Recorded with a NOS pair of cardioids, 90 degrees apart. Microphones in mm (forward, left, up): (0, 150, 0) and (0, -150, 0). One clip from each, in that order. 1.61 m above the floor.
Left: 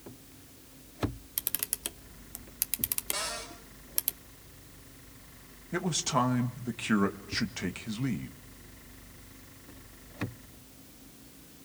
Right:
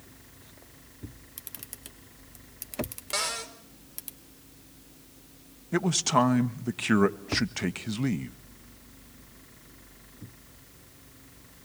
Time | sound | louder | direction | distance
1.4 | a camera shutter | left 9 dB | 55° left | 1.2 m
3.1 | a cupboard door | right 7 dB | 55° right | 4.5 m
5.7 | a man speaking | right 5 dB | 30° right | 1.7 m